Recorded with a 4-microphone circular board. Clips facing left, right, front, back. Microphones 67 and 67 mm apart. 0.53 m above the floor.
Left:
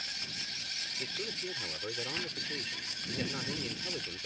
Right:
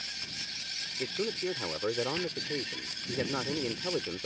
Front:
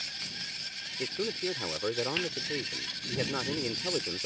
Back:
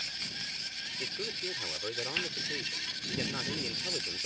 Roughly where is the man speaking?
Ahead right.